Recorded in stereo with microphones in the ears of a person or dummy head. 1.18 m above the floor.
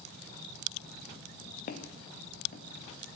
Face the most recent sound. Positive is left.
turn(degrees=45)  # may be behind; listen again after turning